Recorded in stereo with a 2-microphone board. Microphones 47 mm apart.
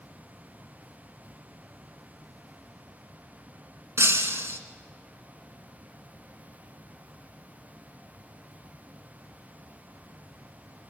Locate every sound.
4.0 s breaking glass: 70° right (ahead or behind), 2 m